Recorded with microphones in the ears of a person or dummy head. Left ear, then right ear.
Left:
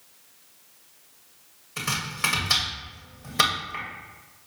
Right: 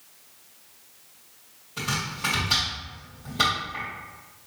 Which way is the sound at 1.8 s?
55° left (ahead or behind).